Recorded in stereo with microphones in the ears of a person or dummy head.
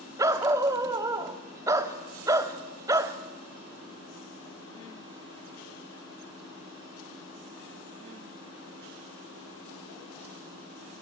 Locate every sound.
0.2 s a dog barking: 20° right (ahead or behind), 1.3 m